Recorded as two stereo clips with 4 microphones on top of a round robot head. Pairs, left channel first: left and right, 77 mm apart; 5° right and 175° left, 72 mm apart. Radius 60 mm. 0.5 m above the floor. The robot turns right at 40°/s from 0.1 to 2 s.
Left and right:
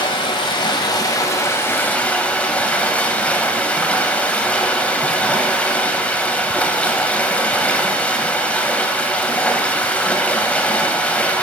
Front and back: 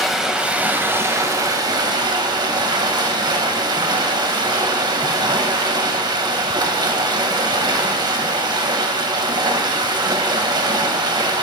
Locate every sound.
0.0 s running water: 85° left, 2 m; by 11.4 s 160° left, 2 m